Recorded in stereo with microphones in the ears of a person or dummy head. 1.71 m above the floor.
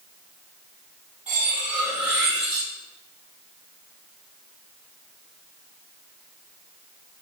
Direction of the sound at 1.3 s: 10° right (ahead or behind).